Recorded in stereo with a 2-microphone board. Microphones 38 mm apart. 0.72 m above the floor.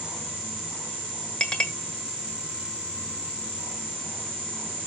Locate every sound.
1.4 s a clink: 25° left (ahead or behind), 1.6 m